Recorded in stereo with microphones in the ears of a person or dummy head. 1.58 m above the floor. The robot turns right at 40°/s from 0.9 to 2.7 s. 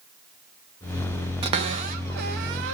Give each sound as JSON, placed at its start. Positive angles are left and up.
{"t": 1.4, "sound": "a cupboard door", "side_deg": -30, "distance_m": 1.2}